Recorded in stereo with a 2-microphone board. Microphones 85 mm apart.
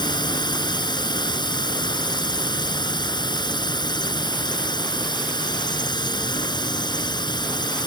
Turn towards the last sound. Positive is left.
turn(degrees=60)  # may be behind; listen again after turning